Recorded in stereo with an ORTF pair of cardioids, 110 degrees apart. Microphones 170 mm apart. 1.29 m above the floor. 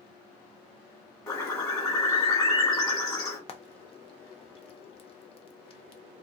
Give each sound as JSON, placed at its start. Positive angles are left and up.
{"t": 1.3, "sound": "a bird", "azimuth_deg": 20, "distance_m": 1.3}
{"t": 3.5, "sound": "frying", "azimuth_deg": 35, "distance_m": 0.5}